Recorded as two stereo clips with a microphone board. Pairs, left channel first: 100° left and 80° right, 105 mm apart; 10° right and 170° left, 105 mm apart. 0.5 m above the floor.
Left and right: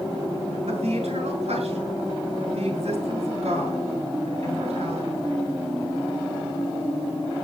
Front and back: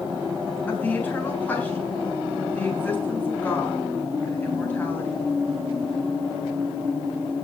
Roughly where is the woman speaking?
Right.